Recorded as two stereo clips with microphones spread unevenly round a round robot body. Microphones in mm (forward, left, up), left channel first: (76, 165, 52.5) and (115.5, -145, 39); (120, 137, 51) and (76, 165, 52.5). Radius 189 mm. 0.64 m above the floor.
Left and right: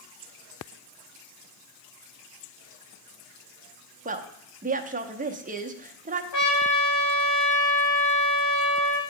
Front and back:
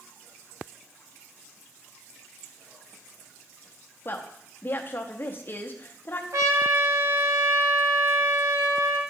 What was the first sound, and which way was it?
A woman speaking, 35° right.